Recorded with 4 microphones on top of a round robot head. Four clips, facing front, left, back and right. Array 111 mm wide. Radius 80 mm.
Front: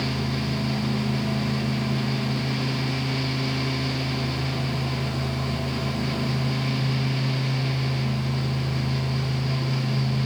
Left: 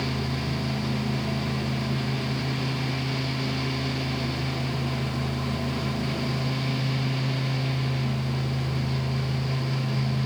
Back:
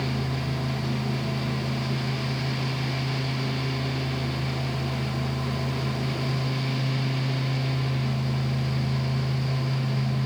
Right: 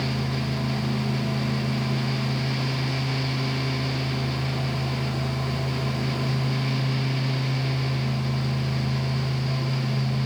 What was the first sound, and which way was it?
Only background noise.